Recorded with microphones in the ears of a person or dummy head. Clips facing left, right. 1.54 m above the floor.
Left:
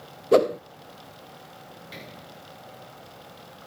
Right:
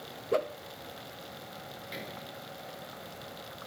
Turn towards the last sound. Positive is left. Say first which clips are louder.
# right 2 dB
turn(degrees=0)  # may be behind; listen again after turning